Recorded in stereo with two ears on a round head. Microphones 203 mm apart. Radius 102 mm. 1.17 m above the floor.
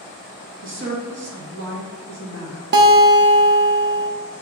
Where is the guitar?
50° right (ahead or behind), 0.7 m.